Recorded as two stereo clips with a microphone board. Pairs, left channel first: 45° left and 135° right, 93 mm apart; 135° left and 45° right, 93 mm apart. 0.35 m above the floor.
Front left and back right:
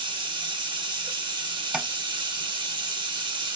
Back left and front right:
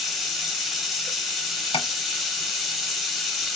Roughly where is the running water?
Behind right.